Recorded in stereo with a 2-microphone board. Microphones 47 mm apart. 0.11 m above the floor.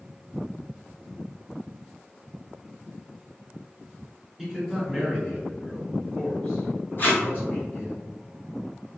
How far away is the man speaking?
About 1.7 m.